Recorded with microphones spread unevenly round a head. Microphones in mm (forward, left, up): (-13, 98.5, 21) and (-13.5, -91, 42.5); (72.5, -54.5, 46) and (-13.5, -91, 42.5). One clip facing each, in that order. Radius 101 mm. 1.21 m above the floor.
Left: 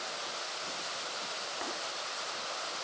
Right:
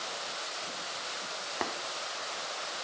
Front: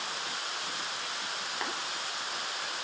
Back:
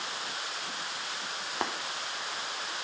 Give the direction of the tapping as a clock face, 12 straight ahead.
4 o'clock.